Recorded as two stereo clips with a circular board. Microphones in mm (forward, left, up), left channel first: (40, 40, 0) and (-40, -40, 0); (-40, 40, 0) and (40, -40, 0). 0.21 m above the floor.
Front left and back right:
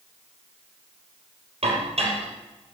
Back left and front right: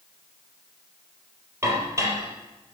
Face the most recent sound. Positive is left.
turn(degrees=-110)